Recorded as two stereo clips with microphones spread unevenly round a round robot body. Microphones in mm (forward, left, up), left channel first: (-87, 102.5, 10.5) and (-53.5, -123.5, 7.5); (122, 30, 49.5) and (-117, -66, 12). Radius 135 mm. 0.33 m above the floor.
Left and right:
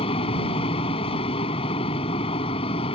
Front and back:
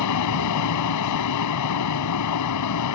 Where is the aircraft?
30° left.